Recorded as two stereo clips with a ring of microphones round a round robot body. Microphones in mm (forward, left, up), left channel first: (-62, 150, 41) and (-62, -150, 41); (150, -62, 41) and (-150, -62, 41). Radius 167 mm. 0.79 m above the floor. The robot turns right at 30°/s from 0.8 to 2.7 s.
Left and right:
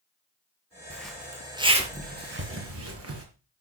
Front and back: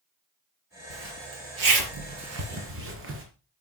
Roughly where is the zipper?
Behind.